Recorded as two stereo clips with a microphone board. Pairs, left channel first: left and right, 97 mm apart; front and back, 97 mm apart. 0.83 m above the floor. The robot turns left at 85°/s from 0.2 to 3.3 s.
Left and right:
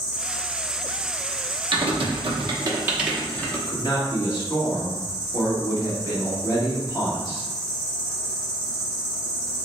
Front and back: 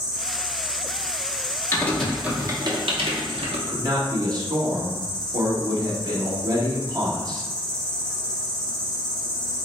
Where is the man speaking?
135° left, 1.5 m.